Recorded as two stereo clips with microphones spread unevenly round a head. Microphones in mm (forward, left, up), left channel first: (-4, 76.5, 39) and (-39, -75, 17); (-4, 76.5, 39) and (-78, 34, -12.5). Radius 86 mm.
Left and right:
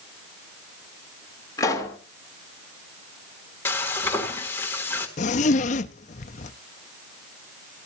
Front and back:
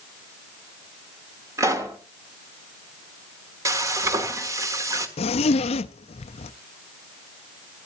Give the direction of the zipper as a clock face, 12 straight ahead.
11 o'clock.